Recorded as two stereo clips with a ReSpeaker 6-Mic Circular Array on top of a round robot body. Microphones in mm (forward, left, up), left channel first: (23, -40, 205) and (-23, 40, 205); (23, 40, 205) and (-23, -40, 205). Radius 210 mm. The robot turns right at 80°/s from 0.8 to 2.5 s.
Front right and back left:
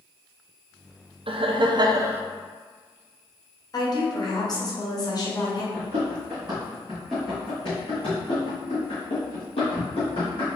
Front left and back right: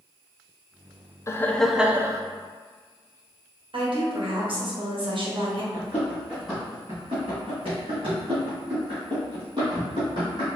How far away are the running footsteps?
About 1.0 m.